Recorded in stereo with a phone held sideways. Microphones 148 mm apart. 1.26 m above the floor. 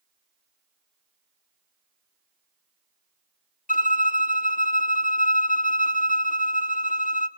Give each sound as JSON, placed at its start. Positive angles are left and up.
{"t": 3.7, "sound": "a violin", "side_deg": 65, "distance_m": 1.1}